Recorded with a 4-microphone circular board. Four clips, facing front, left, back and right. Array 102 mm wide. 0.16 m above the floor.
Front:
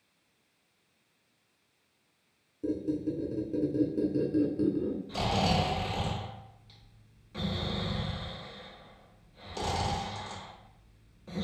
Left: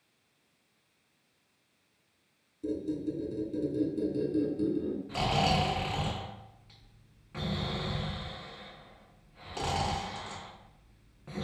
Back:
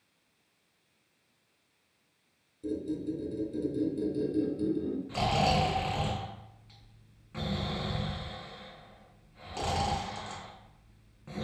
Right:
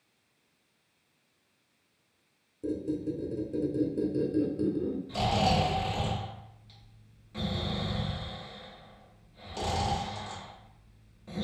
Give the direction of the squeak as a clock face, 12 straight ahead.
1 o'clock.